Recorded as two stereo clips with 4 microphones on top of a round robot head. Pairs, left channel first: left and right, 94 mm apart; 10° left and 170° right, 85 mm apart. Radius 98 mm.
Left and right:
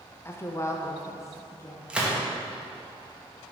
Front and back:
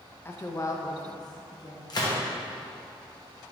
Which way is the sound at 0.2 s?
50° left.